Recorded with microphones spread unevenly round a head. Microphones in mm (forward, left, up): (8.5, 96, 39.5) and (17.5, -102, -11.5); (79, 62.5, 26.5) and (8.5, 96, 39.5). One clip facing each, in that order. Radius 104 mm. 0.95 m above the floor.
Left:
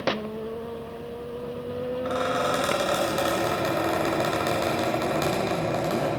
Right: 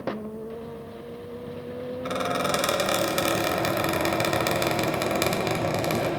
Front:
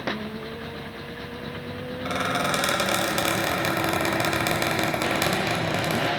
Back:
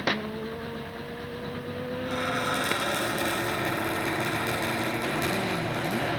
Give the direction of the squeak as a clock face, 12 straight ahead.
1 o'clock.